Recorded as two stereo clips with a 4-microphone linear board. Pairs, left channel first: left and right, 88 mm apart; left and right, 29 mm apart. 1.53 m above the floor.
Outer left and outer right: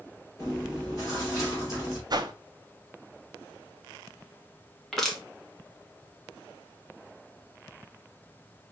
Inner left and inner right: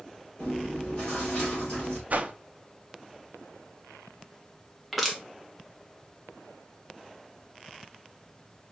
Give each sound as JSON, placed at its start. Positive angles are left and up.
{"t": 0.4, "sound": "chewing", "side_deg": 35, "distance_m": 4.0}
{"t": 2.1, "sound": "a whoosh", "side_deg": -50, "distance_m": 0.7}
{"t": 4.9, "sound": "crushing", "side_deg": 5, "distance_m": 1.4}